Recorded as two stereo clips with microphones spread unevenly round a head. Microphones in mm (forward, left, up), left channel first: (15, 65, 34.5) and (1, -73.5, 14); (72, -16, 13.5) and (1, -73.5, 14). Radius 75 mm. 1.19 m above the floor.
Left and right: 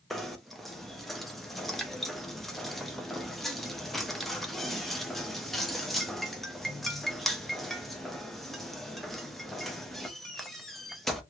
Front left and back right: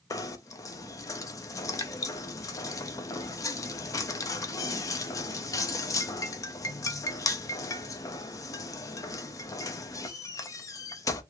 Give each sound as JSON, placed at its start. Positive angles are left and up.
{"t": 0.1, "sound": "knocking", "azimuth_deg": 5, "distance_m": 0.5}